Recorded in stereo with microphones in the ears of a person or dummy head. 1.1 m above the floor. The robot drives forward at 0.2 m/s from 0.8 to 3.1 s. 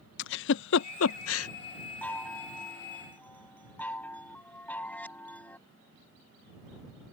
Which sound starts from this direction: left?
A giggle, at 0.2 s.